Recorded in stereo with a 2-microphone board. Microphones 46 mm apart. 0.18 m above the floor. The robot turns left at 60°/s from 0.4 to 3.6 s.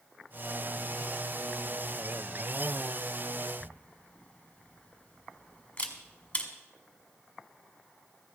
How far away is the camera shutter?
About 1.5 m.